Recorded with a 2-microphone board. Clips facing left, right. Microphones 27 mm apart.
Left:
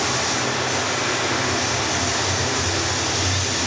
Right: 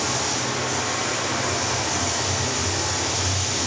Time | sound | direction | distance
0.0 | running water | 40° left (ahead or behind) | 4 m